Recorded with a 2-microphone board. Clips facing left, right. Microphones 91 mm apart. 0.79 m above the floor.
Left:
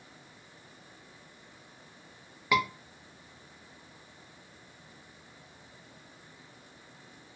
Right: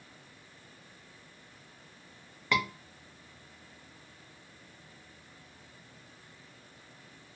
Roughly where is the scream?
Centre.